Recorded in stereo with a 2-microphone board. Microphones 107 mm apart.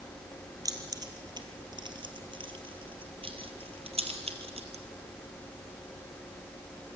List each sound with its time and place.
0.7 s keys jangling: 35° right (ahead or behind), 3 m; by 4.8 s 70° right (ahead or behind), 3 m